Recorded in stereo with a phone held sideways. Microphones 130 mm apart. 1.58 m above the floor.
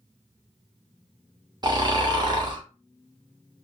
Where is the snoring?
35° right (ahead or behind), 0.7 m.